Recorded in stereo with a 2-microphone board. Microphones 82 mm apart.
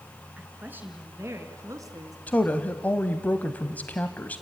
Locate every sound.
0.4 s a woman speaking: 20° right (ahead or behind), 3 m; by 2.2 s 50° right (ahead or behind), 2.5 m
2.3 s a woman speaking: 20° left (ahead or behind), 1.0 m